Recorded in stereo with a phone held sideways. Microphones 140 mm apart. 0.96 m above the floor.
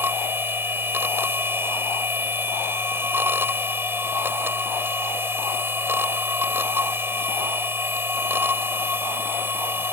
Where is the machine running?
15° right (ahead or behind).